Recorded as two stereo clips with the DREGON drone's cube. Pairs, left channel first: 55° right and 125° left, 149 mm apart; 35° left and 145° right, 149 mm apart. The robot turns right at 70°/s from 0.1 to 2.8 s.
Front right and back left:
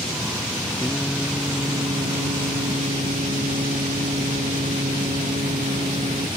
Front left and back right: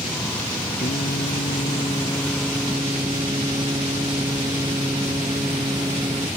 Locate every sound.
0.8 s singing: 10° left; by 6.3 s 155° left